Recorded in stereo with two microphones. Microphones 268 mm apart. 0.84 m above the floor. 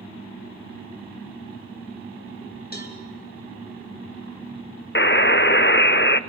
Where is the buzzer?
45° left (ahead or behind), 0.6 m.